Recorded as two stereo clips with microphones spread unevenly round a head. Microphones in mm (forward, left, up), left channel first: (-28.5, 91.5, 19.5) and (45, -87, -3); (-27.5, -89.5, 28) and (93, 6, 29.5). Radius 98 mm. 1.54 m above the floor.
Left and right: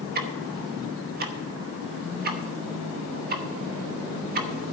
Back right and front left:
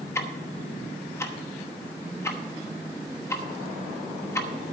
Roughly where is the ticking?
Right.